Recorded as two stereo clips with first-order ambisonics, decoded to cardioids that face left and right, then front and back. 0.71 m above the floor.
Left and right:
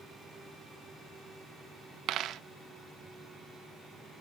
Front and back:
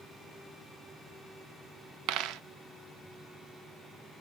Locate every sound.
2.1 s a dropped coin: 140° right, 0.5 m